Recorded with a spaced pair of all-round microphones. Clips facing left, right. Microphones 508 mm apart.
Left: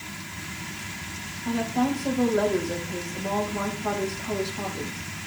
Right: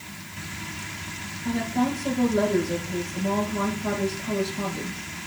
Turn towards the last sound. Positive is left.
turn(degrees=-40)  # may be behind; listen again after turning